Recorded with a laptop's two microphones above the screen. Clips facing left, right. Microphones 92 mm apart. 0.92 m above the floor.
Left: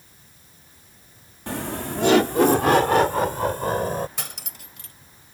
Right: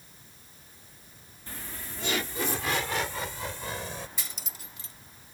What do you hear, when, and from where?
1.5 s laughter: 75° left (ahead or behind); by 4.1 s 50° left (ahead or behind)
4.2 s cutlery clinking: 65° left (ahead or behind)